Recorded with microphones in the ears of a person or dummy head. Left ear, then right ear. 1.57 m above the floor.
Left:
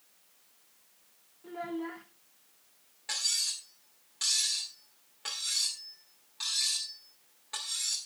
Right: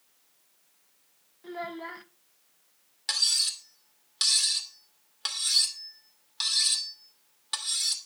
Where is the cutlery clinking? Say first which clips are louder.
Right 6 dB; 50° right (ahead or behind), 2.5 m.